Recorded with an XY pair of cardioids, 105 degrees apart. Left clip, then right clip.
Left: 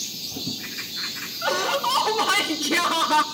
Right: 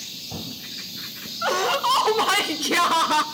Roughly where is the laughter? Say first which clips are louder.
Right 2 dB; ahead.